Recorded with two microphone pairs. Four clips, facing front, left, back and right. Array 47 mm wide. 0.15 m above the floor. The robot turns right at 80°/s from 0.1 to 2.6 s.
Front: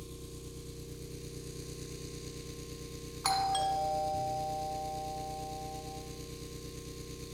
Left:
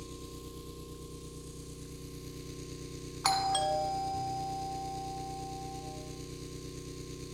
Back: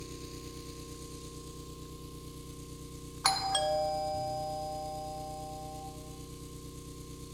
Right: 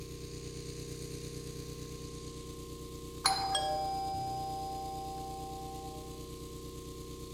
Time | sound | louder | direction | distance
0.0 | an engine running | even, back 2 dB | 165° right | 1.7 m
3.2 | a doorbell | left 3 dB, even | 145° left | 1.9 m